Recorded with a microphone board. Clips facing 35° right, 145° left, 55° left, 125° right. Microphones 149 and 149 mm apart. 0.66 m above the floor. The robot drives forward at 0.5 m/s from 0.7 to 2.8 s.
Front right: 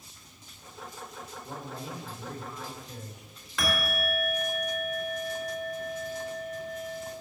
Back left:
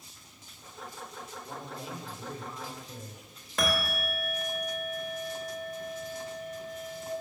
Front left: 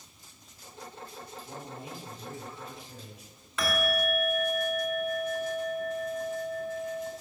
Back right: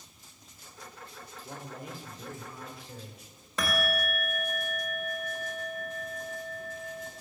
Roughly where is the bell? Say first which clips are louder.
Even, front left 2 dB; behind.